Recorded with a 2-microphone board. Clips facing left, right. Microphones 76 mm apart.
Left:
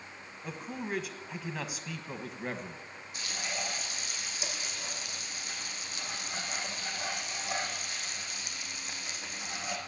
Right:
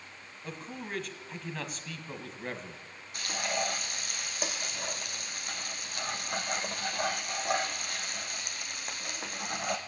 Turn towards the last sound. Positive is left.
turn(degrees=-50)  # may be behind; listen again after turning